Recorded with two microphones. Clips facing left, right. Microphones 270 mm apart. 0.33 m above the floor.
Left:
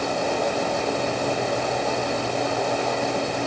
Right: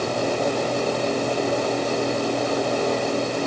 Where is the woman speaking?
No woman speaking in this recording.